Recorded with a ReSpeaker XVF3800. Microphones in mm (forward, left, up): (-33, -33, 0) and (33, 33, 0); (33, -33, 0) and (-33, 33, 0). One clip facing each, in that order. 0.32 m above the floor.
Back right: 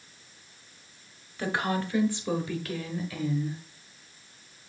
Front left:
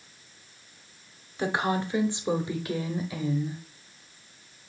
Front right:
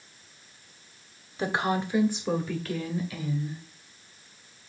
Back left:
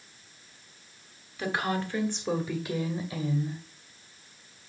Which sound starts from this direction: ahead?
A woman speaking, at 1.4 s.